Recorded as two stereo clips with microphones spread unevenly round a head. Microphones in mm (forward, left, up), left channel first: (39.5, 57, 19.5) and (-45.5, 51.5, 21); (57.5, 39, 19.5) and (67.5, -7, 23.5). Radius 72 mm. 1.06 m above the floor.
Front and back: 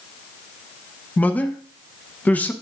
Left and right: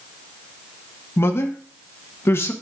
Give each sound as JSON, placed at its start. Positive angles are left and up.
{"t": 1.2, "sound": "a man speaking", "azimuth_deg": 75, "distance_m": 0.9}